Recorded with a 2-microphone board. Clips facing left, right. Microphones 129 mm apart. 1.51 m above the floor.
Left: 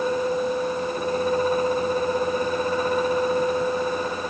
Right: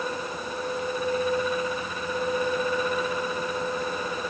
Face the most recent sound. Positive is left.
No sound to turn to.